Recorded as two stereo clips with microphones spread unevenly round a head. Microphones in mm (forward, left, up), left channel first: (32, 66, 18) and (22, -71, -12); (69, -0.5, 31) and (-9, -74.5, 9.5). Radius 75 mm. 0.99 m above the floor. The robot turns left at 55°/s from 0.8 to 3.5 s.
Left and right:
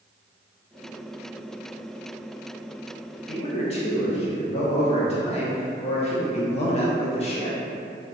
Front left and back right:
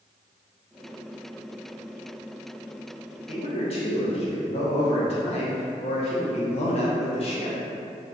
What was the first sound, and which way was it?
A man speaking, 55° left.